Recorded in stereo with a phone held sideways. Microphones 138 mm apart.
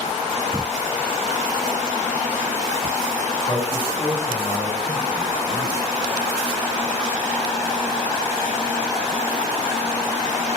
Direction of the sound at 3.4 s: 55° left (ahead or behind).